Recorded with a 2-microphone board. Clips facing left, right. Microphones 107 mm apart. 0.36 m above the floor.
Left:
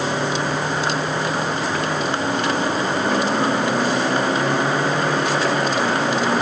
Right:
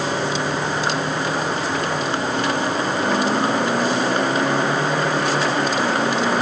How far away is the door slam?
I don't hear a door slam.